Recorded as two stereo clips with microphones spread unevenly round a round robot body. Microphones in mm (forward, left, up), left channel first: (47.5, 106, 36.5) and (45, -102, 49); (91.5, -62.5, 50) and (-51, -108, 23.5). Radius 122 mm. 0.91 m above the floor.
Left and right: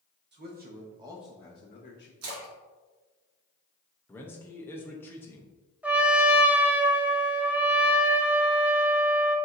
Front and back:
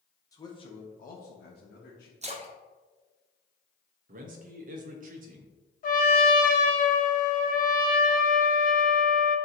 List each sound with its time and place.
0.3 s a man speaking: 55° right, 1.1 m; by 2.1 s 50° left, 1.0 m
2.2 s a splash: 115° right, 0.9 m
4.1 s a man speaking: 170° left, 0.7 m
5.8 s a trumpet: 5° right, 0.8 m